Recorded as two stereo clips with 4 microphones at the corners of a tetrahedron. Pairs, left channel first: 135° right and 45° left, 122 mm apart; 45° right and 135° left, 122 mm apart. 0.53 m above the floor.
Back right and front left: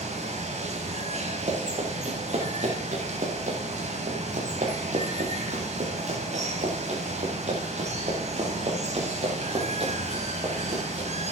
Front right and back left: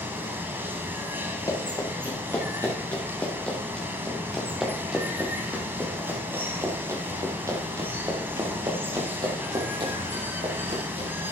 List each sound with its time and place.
0.0 s running water: 65° left, 3 m
1.5 s running footsteps: 20° left, 5.5 m; by 11.1 s 95° left, 7.5 m